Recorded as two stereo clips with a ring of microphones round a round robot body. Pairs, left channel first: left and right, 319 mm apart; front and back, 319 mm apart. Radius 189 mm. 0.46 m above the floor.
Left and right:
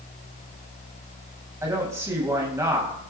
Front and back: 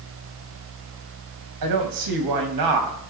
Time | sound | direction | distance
1.6 | a woman speaking | 170° right | 3 m